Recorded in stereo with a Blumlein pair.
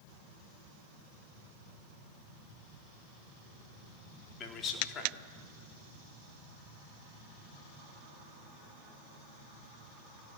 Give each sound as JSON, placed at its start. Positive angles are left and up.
{"t": 4.4, "sound": "a man speaking", "azimuth_deg": 25, "distance_m": 4.0}